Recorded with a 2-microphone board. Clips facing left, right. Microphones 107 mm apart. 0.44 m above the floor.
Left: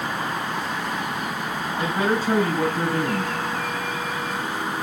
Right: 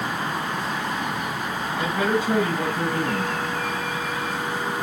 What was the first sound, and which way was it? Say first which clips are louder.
A man speaking: even; 35° left (ahead or behind).